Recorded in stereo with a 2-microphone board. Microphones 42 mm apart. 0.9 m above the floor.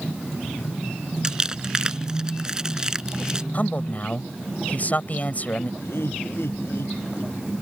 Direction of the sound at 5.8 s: 65° left (ahead or behind).